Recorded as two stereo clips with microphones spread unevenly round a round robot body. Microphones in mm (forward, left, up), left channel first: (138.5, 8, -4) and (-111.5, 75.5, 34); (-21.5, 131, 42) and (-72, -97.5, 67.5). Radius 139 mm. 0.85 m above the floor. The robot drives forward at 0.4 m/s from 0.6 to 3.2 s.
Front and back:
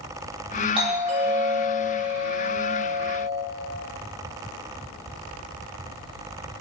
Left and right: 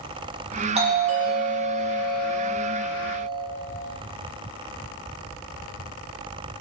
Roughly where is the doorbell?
Behind right.